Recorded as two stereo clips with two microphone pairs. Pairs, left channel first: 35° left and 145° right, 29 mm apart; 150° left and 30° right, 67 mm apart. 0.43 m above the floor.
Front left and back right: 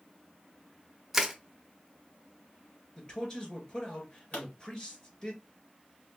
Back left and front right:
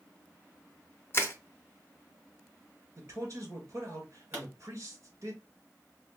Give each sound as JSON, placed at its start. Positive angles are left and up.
{"t": 1.1, "sound": "crushing", "azimuth_deg": 140, "distance_m": 0.7}
{"t": 3.0, "sound": "a man speaking", "azimuth_deg": -20, "distance_m": 1.8}
{"t": 4.3, "sound": "a pop", "azimuth_deg": 30, "distance_m": 3.0}